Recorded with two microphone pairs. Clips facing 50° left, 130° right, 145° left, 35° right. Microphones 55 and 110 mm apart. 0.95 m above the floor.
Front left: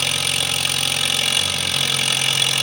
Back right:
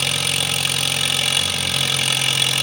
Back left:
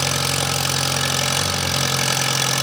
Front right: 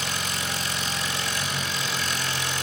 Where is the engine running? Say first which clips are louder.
Even, back left 7 dB; 140° left, 1.0 m.